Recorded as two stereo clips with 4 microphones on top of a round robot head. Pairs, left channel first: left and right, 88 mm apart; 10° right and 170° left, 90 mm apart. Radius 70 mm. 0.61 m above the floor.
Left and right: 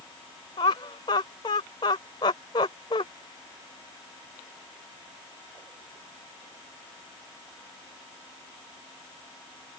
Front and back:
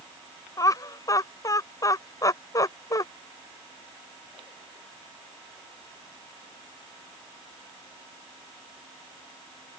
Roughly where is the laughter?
Ahead left.